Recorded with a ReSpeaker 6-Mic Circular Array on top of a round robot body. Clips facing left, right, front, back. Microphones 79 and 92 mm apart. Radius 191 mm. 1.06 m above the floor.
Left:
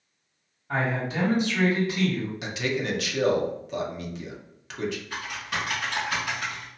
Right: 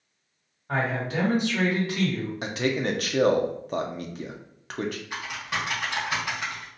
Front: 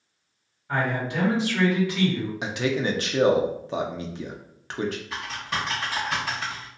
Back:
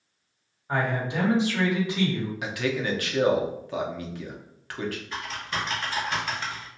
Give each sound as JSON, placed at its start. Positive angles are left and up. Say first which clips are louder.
{"t": 0.7, "sound": "a man speaking", "louder": "even, front 1 dB", "azimuth_deg": -110, "distance_m": 1.8}
{"t": 2.4, "sound": "a man speaking", "louder": "right 5 dB, front 3 dB", "azimuth_deg": -60, "distance_m": 0.8}
{"t": 5.1, "sound": "typing on a keyboard", "louder": "even, front 1 dB", "azimuth_deg": -35, "distance_m": 1.2}